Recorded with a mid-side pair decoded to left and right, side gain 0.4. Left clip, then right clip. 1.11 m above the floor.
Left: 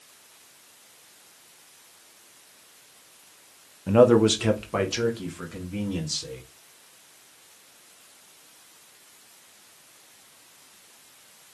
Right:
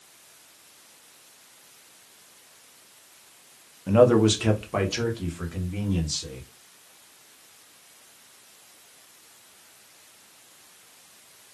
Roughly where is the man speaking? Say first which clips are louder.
Left 1 dB; ahead.